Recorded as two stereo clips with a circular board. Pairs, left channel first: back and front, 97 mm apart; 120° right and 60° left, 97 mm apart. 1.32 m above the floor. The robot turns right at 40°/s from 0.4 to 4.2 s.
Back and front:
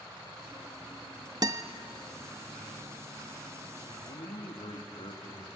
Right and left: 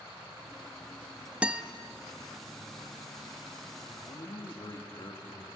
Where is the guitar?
15° right, 0.8 m; by 1.6 s 5° right, 0.8 m.